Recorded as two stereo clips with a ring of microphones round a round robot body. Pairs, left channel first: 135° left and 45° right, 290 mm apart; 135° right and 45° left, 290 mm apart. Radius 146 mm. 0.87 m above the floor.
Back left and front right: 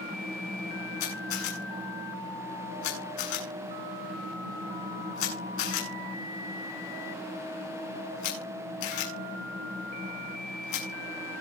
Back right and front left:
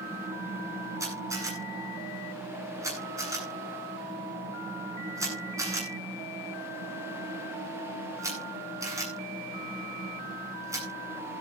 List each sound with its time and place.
1.0 s a camera shutter: 125° left, 9 m